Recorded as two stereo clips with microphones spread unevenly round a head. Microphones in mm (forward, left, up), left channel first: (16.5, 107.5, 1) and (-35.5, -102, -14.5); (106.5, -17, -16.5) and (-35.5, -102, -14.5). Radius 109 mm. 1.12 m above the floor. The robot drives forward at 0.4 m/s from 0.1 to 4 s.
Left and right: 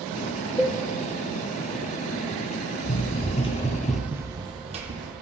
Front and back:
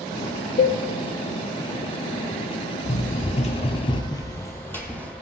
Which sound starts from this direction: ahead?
A cowbell, at 0.6 s.